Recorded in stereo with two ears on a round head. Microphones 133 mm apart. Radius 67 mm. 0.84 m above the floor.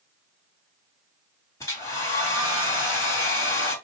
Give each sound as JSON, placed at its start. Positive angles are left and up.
{"t": 1.6, "sound": "a hair dryer", "side_deg": 20, "distance_m": 2.5}